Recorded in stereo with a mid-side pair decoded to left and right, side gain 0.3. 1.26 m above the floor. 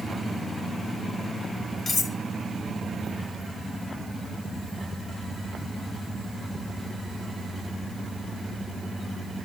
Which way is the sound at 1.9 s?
60° left.